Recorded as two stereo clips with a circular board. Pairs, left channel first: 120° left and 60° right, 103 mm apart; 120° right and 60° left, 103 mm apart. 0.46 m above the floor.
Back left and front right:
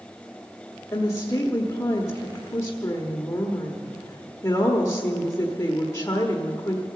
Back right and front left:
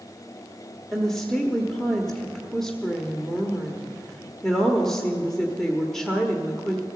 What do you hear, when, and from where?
0.9 s a woman speaking: 160° left, 1.2 m